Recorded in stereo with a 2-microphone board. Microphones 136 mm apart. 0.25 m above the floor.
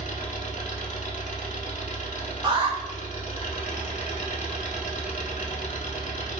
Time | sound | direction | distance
0.0 | an engine running | 60° left (ahead or behind) | 0.7 m
2.4 | an alarm | 35° right (ahead or behind) | 1.3 m